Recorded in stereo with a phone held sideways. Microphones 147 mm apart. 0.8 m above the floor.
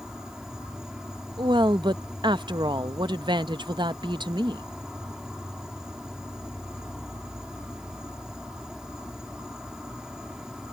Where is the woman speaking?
30° right (ahead or behind).